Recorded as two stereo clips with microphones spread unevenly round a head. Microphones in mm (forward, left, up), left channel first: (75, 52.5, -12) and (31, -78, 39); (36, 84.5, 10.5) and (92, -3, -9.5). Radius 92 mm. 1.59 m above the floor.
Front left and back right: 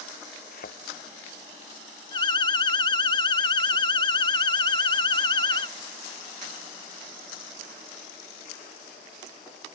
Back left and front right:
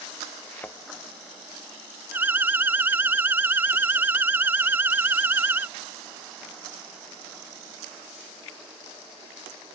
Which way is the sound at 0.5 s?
55° left.